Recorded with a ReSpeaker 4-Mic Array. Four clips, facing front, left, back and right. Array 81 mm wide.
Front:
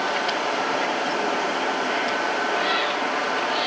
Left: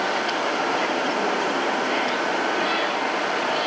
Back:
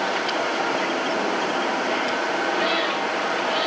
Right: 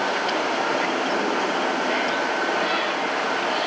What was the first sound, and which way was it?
Only background noise.